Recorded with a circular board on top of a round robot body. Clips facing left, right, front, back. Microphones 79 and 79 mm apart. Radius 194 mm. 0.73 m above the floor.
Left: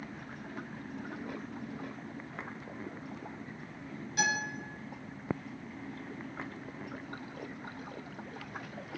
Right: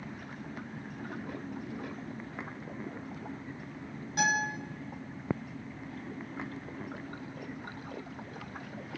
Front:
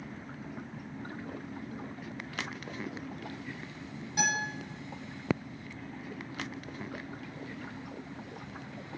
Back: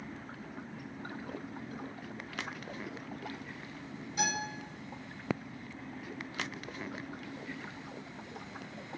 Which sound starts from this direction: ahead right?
A guitar, at 4.2 s.